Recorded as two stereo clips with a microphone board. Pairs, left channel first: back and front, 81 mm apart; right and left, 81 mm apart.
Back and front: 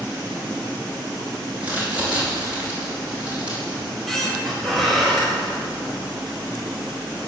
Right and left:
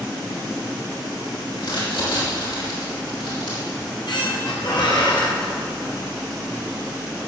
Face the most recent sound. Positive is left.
turn(degrees=-90)